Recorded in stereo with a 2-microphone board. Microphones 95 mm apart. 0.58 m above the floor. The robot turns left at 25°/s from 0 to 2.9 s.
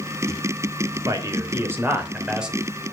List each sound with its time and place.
1.1 s a man speaking: 135° right, 3 m; by 2.6 s 175° right, 3 m